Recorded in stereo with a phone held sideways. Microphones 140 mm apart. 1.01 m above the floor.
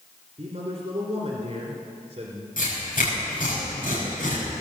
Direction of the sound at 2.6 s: 85° left.